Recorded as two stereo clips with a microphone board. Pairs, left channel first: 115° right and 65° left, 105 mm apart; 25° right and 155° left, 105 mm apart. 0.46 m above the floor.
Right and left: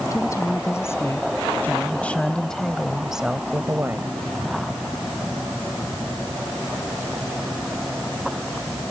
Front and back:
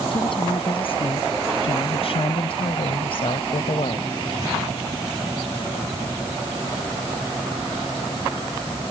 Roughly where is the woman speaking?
Ahead right.